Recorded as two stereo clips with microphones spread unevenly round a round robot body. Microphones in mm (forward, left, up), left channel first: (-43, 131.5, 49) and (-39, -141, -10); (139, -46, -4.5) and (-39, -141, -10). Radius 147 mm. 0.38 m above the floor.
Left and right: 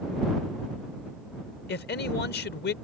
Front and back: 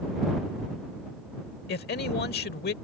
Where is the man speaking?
35° left.